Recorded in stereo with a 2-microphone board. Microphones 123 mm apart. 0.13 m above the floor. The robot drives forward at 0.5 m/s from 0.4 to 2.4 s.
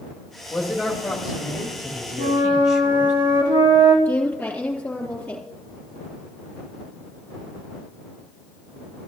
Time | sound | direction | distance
0.5 | a man speaking | centre (ahead or behind) | 2.5 m
2.2 | a flute | 40° right (ahead or behind) | 3 m
4.0 | a woman speaking | 15° left (ahead or behind) | 3.5 m